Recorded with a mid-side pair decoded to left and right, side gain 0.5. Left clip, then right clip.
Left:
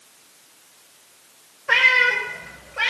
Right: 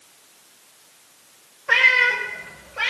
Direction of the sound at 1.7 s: 10° left.